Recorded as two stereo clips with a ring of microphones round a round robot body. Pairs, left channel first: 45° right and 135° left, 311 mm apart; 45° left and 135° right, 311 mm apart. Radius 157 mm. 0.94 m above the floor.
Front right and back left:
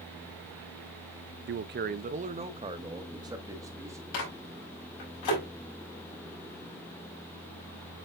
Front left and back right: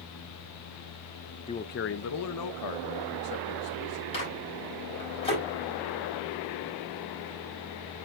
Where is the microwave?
25° right, 5 m.